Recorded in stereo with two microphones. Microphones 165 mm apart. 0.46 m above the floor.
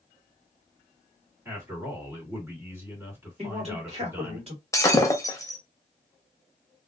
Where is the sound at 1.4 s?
15° right (ahead or behind), 1.8 m.